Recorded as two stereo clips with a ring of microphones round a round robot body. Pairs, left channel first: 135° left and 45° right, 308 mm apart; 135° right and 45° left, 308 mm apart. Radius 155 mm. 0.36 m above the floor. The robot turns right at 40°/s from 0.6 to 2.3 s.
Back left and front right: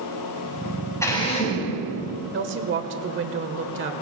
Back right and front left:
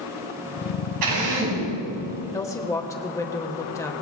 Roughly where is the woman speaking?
Ahead right.